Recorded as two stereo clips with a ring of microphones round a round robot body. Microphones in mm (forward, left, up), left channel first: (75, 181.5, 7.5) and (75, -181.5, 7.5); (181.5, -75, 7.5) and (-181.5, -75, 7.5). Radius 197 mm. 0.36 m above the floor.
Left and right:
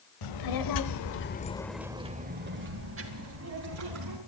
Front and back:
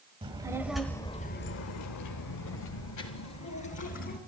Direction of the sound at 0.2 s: 105° left.